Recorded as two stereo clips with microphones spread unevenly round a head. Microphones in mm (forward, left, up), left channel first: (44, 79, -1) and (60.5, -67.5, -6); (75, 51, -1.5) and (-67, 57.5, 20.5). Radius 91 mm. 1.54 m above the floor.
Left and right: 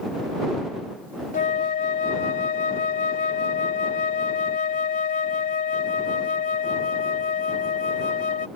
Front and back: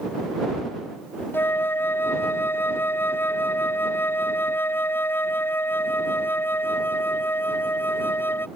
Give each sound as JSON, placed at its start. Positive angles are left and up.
{"t": 1.3, "sound": "a flute", "azimuth_deg": 75}